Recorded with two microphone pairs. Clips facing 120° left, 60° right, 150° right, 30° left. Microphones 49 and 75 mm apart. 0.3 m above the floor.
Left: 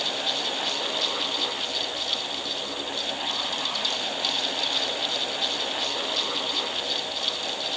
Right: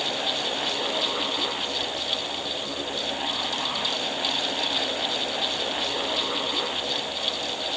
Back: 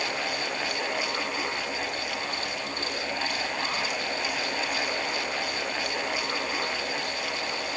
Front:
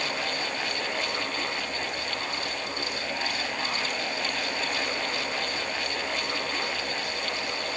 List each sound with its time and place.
Only background noise.